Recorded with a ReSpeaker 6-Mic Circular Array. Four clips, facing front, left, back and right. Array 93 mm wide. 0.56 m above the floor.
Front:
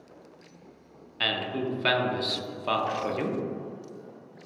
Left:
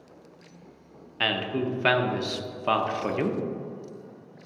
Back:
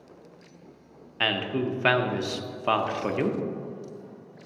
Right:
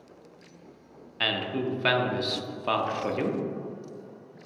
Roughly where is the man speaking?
Behind left.